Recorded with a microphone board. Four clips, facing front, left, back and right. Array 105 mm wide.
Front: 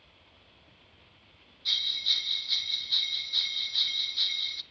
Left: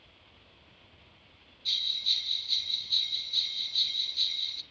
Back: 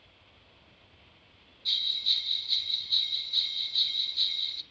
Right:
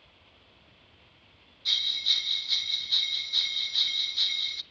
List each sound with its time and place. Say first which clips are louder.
1.6 s a bell: right 4 dB, front 1 dB; 55° right, 0.6 m